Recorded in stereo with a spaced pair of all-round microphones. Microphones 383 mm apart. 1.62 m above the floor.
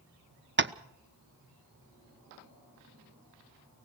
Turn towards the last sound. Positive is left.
turn(degrees=-30)  # may be behind; listen again after turning